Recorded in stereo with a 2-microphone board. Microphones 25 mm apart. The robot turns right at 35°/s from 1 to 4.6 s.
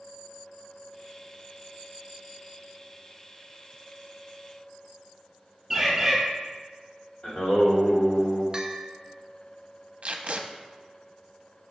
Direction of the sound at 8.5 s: 25° right (ahead or behind).